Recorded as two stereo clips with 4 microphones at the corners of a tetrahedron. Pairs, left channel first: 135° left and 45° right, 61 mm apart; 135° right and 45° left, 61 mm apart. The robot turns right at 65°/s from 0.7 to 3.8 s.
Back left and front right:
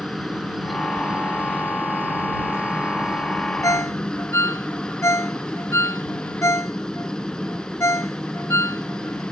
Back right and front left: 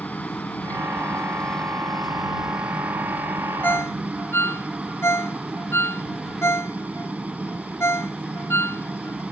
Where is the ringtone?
165° left; by 9.2 s 175° left.